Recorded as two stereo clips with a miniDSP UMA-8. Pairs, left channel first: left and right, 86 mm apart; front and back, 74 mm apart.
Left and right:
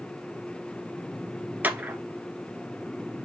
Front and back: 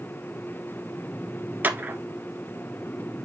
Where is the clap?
140° right, 1.0 m.